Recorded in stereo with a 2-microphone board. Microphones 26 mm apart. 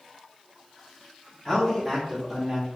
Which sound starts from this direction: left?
A man speaking, at 1.4 s.